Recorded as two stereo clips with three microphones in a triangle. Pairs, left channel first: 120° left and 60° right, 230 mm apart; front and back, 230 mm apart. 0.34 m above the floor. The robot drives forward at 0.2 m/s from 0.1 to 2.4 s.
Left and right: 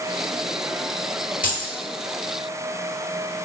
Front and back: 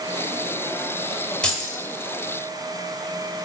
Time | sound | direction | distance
1.4 | keys jangling | 85° left | 1.0 m